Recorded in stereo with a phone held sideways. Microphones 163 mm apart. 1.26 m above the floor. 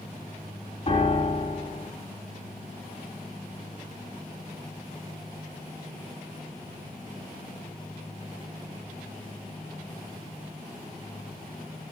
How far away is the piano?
About 2.0 m.